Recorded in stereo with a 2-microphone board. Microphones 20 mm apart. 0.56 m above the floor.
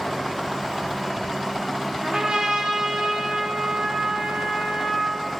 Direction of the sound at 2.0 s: 45° right (ahead or behind).